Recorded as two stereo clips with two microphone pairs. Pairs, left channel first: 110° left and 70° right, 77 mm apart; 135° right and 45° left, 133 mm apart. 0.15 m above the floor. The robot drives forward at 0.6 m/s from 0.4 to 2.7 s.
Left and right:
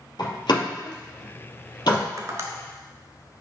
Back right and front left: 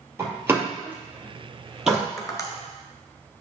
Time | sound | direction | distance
0.2 | a door slam | 110° left | 2.5 m
2.2 | tapping | 80° right | 1.3 m